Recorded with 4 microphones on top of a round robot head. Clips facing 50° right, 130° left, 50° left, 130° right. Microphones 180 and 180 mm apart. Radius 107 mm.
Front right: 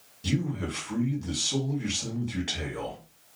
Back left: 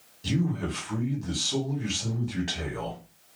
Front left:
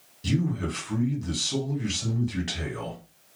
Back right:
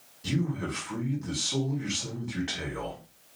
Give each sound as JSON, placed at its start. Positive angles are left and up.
{"t": 0.2, "sound": "a man speaking", "azimuth_deg": 30, "distance_m": 1.5}